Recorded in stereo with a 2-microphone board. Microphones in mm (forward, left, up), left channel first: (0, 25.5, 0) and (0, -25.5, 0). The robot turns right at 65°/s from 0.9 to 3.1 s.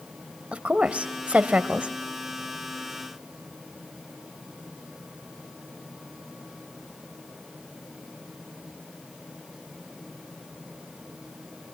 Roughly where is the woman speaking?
Right.